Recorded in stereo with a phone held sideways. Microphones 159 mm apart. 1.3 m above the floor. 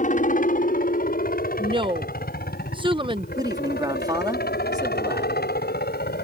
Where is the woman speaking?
30° right (ahead or behind).